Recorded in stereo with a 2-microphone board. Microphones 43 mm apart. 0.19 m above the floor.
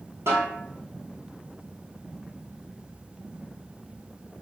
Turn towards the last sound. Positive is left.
turn(degrees=-80)